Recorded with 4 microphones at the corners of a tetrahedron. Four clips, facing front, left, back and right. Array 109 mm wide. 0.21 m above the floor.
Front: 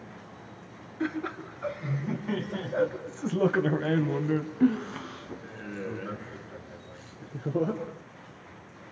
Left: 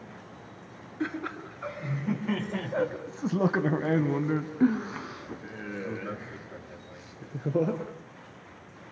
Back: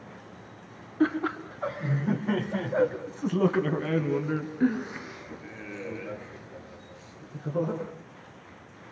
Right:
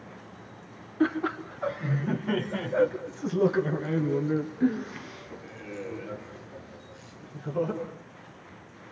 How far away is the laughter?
About 2.5 m.